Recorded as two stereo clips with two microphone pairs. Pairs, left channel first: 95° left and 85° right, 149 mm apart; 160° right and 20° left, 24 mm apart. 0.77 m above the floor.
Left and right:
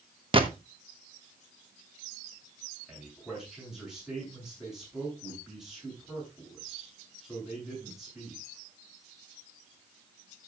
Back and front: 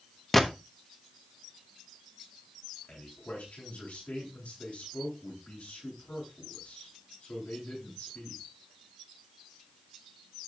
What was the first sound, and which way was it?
A gunshot, 95° right.